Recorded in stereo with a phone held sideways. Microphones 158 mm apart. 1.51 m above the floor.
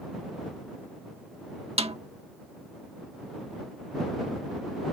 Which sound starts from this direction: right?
A snare drum, at 1.8 s.